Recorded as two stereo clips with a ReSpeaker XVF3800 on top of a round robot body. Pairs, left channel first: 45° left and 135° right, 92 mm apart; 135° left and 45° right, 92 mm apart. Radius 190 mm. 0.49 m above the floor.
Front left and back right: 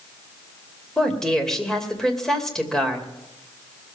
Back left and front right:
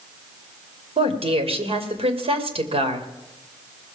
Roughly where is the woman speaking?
Ahead right.